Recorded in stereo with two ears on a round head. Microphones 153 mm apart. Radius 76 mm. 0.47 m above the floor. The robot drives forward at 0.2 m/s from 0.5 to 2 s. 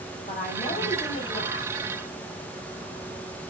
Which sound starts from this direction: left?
A woman speaking, at 0.3 s.